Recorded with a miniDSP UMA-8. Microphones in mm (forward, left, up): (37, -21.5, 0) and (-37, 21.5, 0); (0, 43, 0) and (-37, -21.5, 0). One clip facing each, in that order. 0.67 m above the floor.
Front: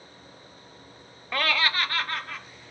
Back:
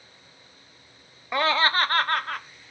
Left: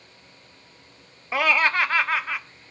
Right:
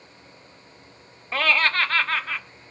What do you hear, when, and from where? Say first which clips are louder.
1.3 s laughter: back 4 dB, left 1 dB; 115° left, 0.6 m; by 2.4 s 135° left, 1.2 m